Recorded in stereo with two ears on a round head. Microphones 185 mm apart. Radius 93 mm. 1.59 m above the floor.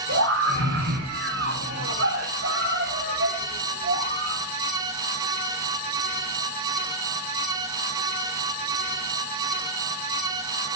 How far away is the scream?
About 5 m.